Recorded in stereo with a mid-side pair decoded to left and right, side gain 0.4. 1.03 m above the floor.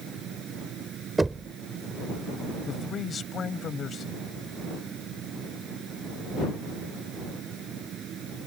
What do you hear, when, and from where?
0.0 s a fan: 70° right
1.2 s knocking: 25° right
2.7 s a man speaking: 55° left